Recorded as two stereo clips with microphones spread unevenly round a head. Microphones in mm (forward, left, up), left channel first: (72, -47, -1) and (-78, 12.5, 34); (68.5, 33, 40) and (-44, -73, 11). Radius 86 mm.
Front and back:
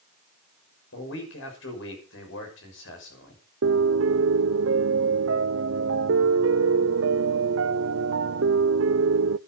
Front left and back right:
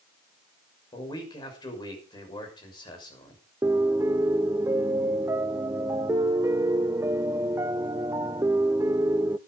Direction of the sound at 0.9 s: 20° right.